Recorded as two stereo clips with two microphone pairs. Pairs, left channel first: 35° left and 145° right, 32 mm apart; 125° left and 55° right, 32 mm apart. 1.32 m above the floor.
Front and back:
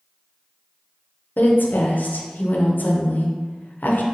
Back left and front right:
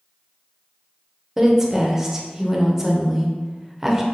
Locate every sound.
1.4 s a woman speaking: 20° left, 0.7 m